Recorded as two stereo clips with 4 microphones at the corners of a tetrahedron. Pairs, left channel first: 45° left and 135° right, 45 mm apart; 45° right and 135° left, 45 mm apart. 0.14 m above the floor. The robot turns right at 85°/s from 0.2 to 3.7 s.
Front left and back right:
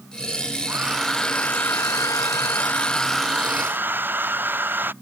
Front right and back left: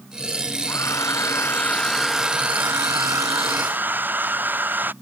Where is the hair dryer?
75° right; by 4.9 s straight behind.